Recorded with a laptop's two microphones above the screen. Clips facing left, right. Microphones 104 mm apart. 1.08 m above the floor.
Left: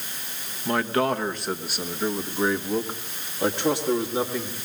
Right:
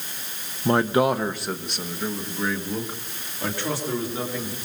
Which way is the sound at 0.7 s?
30° right (ahead or behind).